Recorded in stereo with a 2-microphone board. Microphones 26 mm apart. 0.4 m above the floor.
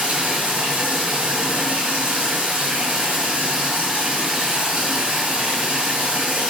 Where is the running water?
75° right (ahead or behind), 3.5 m.